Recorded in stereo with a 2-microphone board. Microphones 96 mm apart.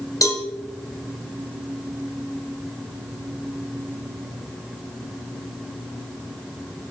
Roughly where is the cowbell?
Left.